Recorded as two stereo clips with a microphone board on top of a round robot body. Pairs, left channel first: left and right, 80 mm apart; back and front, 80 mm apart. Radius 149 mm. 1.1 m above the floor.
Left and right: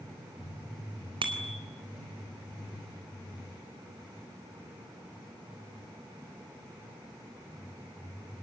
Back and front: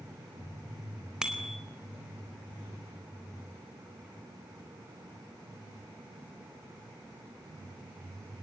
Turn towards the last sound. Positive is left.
turn(degrees=-80)